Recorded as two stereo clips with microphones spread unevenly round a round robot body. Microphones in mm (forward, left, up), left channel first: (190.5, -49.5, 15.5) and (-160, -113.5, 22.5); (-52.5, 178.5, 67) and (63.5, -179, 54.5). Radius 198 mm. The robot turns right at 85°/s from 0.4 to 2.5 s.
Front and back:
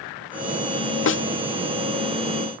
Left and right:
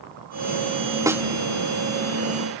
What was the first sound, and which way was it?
A snare drum, straight ahead.